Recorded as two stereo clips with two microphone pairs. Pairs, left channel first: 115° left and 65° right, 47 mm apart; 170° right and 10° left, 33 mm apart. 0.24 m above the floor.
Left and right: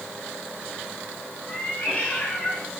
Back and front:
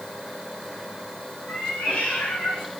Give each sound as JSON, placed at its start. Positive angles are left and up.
{"t": 1.5, "sound": "a cat meowing", "azimuth_deg": 165, "distance_m": 5.5}